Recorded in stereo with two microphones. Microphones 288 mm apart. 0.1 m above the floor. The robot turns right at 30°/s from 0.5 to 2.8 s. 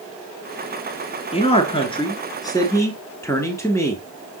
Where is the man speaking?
20° left (ahead or behind), 1.1 m; by 4.3 s 10° left (ahead or behind), 1.1 m.